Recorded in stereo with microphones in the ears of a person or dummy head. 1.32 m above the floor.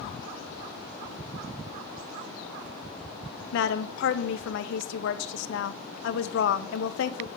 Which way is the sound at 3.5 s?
70° left (ahead or behind).